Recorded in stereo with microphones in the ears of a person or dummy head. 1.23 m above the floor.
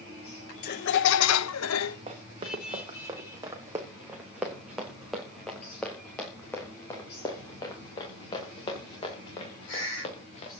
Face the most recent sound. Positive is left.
turn(degrees=30)  # may be behind; listen again after turning